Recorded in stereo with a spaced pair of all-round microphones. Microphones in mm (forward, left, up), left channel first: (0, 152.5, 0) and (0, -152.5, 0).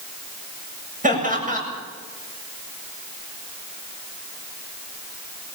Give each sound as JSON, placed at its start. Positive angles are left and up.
{"t": 1.0, "sound": "laughter", "side_deg": -25, "distance_m": 7.5}